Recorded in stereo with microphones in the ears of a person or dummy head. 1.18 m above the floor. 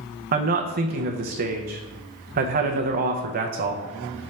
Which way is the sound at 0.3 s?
45° right (ahead or behind).